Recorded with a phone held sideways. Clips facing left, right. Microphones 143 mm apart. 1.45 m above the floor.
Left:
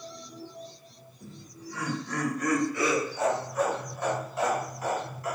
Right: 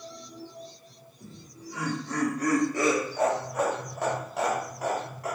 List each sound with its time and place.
1.2 s laughter: 10° right (ahead or behind), 1.5 m; by 5.3 s 65° right (ahead or behind), 1.4 m